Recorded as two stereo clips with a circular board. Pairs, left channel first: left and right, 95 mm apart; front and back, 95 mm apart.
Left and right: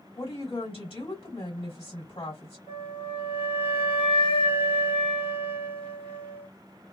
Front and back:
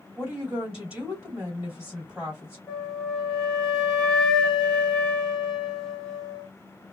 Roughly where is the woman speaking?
Left.